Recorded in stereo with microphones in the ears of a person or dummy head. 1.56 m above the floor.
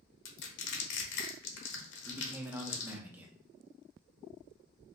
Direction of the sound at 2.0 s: 15° right (ahead or behind).